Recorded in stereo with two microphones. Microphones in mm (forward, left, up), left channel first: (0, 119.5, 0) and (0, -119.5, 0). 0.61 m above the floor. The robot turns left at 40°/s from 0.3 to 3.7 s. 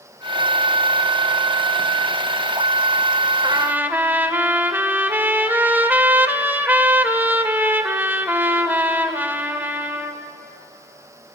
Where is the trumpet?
20° right (ahead or behind), 1.5 m; by 10.2 s 10° right (ahead or behind), 1.5 m.